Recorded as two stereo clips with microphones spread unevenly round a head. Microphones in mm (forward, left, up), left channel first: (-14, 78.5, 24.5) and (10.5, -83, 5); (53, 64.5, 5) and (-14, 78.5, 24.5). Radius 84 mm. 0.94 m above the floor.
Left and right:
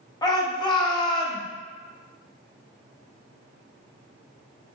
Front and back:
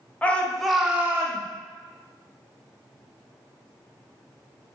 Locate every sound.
0.2 s a shout: 35° left, 0.9 m; by 1.4 s 160° left, 0.7 m